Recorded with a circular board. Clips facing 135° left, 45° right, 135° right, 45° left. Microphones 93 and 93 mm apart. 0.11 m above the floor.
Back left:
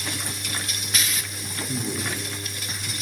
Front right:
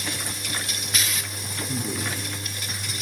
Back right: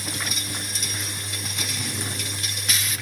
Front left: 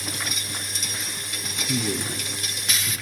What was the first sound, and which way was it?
A man speaking, 50° left.